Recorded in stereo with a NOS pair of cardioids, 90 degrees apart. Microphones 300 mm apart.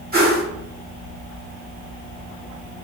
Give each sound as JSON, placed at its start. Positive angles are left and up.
{"t": 0.1, "sound": "a whoosh", "azimuth_deg": -30, "distance_m": 1.4}